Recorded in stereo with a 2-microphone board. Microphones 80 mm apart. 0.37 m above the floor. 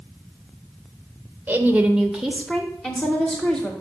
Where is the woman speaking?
20° right (ahead or behind), 1.0 m; by 3.7 s 25° left (ahead or behind), 1.5 m.